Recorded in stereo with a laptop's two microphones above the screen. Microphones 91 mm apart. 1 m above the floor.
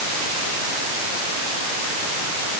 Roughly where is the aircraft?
No aircraft in this recording.